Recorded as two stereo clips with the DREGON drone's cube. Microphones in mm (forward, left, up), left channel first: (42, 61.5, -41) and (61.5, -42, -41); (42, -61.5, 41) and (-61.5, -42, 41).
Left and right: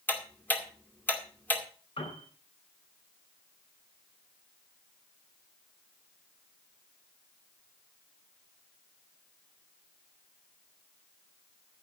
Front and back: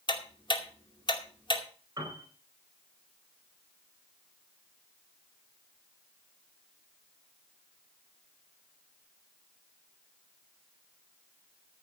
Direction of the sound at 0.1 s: 30° left.